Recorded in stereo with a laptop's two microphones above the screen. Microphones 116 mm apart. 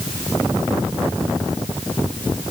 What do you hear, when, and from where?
Only background noise.